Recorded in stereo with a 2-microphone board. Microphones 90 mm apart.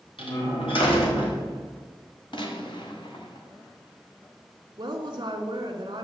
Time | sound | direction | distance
0.2 | a door slam | 80° left | 3 m
2.3 | a gunshot | 65° left (ahead or behind) | 1.7 m
4.8 | a woman speaking | 50° right (ahead or behind) | 1.9 m